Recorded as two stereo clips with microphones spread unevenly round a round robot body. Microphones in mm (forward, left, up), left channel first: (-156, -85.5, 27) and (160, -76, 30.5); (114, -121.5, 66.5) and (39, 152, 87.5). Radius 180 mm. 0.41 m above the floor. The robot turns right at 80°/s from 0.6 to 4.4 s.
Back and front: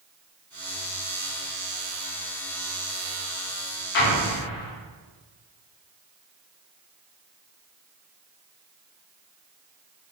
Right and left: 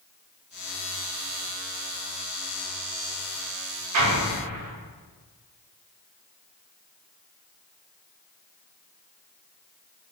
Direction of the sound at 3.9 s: 125° left.